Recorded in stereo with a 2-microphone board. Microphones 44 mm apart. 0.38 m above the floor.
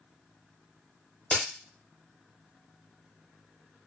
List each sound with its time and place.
1.3 s a crack: 30° left (ahead or behind), 1.1 m